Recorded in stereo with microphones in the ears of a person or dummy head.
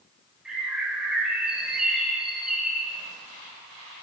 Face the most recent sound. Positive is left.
turn(degrees=0)  # may be behind; listen again after turning